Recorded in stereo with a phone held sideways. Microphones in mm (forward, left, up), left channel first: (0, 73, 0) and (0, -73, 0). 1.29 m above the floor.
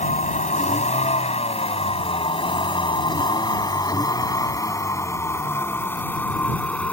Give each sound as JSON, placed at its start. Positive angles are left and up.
{"t": 0.0, "sound": "a vehicle", "side_deg": 55}